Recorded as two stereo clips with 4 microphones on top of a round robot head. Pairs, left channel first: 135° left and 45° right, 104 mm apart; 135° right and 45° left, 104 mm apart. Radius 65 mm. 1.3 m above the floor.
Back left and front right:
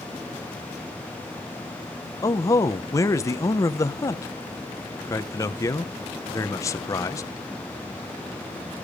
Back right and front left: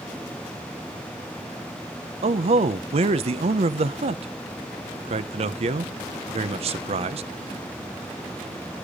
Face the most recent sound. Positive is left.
turn(degrees=75)